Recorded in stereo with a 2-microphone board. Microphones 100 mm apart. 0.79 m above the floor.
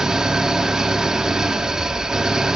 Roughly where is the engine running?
Centre.